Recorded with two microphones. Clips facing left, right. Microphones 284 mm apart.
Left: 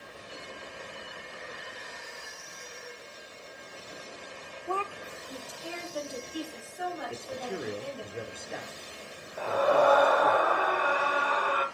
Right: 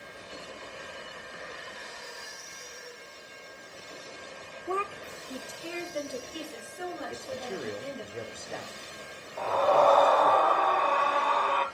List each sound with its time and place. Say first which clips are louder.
4.7 s a woman speaking: right 2 dB; 20° right (ahead or behind), 0.8 m; by 8.1 s 30° right (ahead or behind), 3 m
7.1 s a man speaking: even; 5° left (ahead or behind), 0.8 m
9.4 s a scream: even; 10° left (ahead or behind), 1.4 m